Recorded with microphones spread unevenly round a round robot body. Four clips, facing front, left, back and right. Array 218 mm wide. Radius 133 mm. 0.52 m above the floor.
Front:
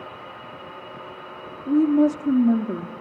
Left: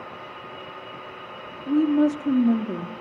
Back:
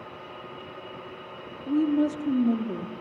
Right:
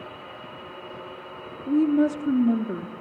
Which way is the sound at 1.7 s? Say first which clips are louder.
Left 1 dB, front 6 dB; 20° left.